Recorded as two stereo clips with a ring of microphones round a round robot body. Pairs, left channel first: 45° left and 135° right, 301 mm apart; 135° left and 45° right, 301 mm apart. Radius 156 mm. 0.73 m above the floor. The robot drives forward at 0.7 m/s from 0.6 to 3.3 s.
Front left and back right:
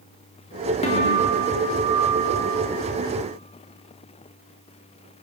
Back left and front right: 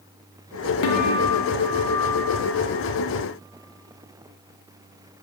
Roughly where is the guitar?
Behind left.